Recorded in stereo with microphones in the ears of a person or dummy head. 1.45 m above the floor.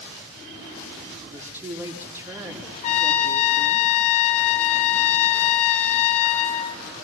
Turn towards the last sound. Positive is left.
turn(degrees=35)  # may be behind; listen again after turning